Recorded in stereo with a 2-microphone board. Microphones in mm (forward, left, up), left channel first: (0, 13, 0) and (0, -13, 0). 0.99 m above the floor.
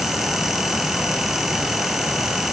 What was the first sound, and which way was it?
Only background noise.